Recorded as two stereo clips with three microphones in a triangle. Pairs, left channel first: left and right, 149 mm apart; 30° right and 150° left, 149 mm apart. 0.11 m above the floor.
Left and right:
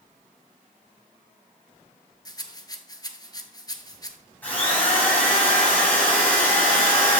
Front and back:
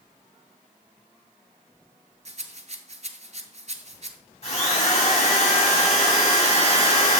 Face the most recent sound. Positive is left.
turn(degrees=15)